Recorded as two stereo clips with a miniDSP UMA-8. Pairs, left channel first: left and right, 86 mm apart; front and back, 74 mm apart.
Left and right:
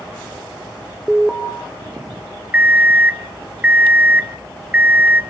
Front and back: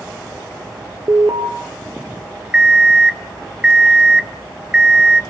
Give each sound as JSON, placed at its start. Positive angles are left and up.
{"t": 1.1, "sound": "an alarm", "azimuth_deg": -175, "distance_m": 1.5}
{"t": 2.5, "sound": "an alarm clock", "azimuth_deg": -125, "distance_m": 0.7}